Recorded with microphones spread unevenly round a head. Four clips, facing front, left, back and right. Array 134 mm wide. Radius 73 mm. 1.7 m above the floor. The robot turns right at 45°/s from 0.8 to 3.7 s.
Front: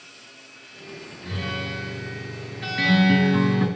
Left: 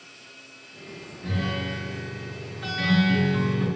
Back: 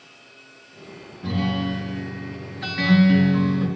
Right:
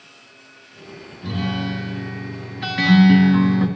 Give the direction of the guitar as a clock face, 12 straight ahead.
5 o'clock.